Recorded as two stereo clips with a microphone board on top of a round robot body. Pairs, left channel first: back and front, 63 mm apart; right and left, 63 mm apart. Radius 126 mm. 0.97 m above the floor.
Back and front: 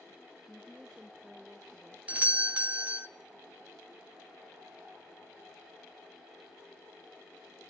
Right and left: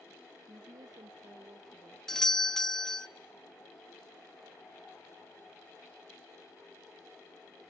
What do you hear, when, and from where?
0.5 s a woman speaking: 90° left, 1.6 m
2.1 s a doorbell: 20° right, 1.3 m